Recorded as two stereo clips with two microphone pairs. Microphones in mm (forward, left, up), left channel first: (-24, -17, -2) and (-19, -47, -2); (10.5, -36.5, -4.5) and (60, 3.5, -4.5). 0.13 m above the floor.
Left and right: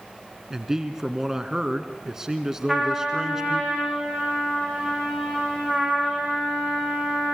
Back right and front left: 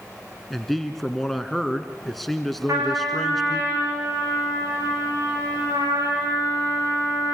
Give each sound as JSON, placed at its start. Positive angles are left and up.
{"t": 0.5, "sound": "a man speaking", "azimuth_deg": -60, "distance_m": 1.7}
{"t": 2.7, "sound": "a trumpet", "azimuth_deg": 10, "distance_m": 9.0}